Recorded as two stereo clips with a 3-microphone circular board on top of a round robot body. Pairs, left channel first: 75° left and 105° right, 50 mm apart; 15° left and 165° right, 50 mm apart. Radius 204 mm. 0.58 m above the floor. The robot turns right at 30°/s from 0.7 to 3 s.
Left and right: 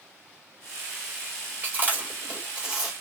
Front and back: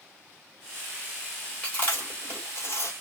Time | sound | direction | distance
1.6 | chewing | 50° right | 4 m